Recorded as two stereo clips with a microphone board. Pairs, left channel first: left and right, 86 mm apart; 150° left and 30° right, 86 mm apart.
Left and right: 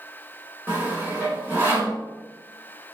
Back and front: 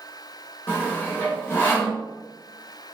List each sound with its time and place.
0.7 s sawing: 155° right, 3 m